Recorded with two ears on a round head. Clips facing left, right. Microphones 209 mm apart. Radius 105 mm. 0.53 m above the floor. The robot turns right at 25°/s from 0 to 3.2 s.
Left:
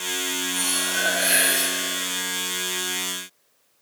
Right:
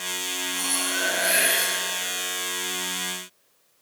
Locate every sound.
0.5 s cutlery clinking: 25° left (ahead or behind), 7.5 m; by 1.7 s 55° left (ahead or behind), 7.5 m